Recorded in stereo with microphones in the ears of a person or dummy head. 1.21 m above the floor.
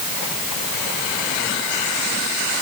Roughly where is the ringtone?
I don't hear a ringtone.